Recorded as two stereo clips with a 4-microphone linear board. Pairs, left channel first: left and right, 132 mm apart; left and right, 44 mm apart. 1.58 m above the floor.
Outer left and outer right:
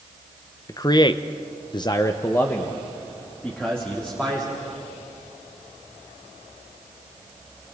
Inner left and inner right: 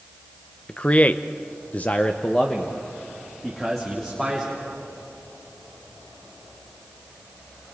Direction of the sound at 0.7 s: 25° left (ahead or behind).